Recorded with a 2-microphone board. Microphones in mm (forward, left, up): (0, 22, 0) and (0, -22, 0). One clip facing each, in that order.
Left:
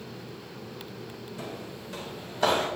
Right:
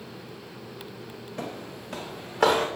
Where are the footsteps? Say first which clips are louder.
Right 4 dB; 65° right (ahead or behind), 1.3 m; by 2.7 s 70° right (ahead or behind), 2 m.